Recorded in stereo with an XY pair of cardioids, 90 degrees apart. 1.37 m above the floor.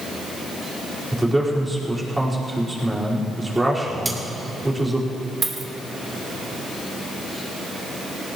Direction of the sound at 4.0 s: 15° right.